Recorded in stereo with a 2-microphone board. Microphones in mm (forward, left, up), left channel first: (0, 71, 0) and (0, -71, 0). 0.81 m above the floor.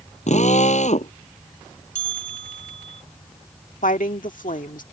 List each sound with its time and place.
0.3 s a drill: 55° left (ahead or behind)
1.9 s a bell: 55° left (ahead or behind)
3.8 s a woman speaking: 70° left (ahead or behind)